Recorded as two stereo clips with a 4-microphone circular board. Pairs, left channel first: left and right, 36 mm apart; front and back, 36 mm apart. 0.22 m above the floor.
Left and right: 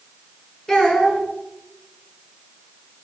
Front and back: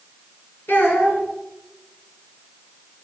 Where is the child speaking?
15° left, 2 m.